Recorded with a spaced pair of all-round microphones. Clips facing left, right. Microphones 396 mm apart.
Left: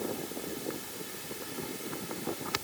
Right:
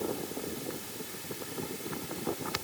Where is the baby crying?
No baby crying in this recording.